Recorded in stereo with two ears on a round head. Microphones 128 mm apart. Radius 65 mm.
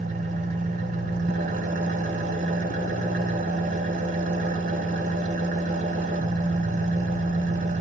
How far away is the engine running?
About 1.4 m.